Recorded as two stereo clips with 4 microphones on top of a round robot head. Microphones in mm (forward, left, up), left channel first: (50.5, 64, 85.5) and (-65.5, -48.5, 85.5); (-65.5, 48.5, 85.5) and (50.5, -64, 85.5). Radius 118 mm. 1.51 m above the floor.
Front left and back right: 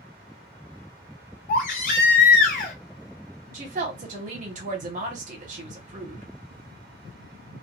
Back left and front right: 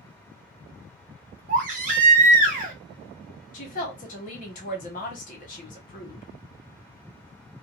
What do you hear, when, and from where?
1.5 s a baby crying: straight ahead, 0.5 m
3.5 s a woman speaking: straight behind, 1.0 m